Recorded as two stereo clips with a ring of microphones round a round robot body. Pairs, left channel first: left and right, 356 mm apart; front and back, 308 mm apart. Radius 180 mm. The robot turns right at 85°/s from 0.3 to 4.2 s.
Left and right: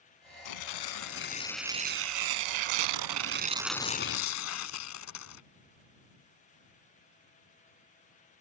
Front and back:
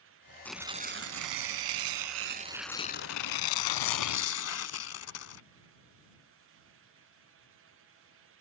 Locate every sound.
0.5 s tearing paper: 85° left; by 5.4 s 40° left